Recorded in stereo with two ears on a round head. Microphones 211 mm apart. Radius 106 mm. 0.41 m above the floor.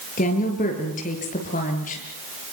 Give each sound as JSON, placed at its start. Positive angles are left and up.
{"t": 0.2, "sound": "a woman speaking", "side_deg": 35, "distance_m": 6.5}